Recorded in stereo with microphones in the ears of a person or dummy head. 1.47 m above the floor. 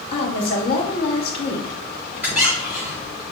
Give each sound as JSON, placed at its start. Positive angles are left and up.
{"t": 0.1, "sound": "a woman speaking", "side_deg": 30, "distance_m": 1.5}
{"t": 2.2, "sound": "a squeak", "side_deg": -10, "distance_m": 1.1}